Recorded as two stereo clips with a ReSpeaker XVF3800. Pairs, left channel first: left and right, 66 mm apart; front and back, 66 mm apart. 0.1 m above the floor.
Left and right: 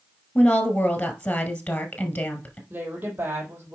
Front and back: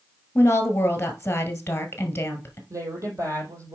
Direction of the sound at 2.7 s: 150° right.